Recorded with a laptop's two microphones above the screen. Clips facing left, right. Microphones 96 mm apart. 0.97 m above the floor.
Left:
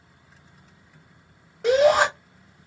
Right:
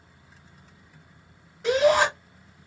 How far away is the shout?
About 3 m.